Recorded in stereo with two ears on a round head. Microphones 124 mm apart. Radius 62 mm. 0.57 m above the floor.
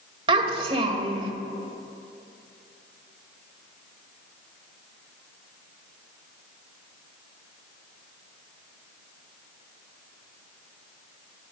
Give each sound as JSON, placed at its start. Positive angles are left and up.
{"t": 0.3, "sound": "a child speaking", "side_deg": -40, "distance_m": 1.5}